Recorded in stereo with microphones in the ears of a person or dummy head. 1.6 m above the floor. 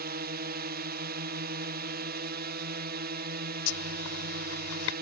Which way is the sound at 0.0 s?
40° right (ahead or behind).